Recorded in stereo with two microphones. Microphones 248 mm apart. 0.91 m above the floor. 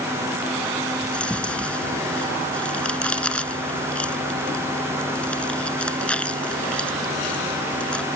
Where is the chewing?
5° left (ahead or behind).